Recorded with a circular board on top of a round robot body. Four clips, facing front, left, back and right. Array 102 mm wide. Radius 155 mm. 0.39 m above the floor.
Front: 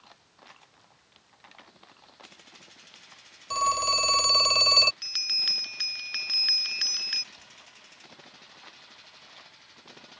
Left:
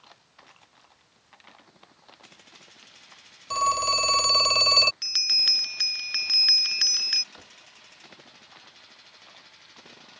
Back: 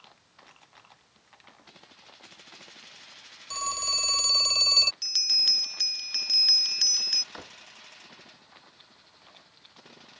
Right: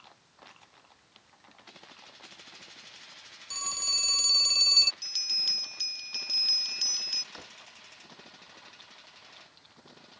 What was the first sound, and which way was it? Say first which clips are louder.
A phone ringing: left 19 dB, front 9 dB; 60° left.